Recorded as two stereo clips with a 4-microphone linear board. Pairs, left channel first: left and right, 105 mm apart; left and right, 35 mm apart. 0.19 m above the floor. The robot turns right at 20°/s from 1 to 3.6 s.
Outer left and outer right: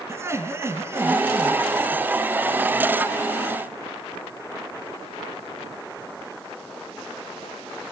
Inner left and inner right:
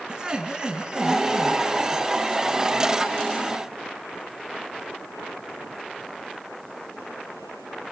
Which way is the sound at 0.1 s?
25° right (ahead or behind).